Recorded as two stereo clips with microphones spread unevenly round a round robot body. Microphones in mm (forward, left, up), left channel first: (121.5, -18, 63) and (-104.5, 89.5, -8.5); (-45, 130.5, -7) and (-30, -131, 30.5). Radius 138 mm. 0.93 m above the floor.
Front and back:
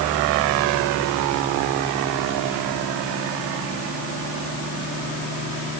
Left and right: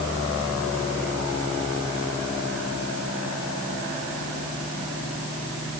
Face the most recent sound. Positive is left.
No sound to turn to.